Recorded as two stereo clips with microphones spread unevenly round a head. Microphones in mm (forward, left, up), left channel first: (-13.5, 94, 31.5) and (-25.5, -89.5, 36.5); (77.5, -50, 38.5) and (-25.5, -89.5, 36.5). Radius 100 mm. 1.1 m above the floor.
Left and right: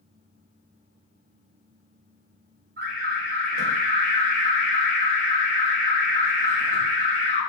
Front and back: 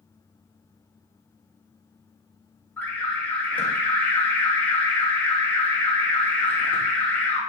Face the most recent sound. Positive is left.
turn(degrees=-55)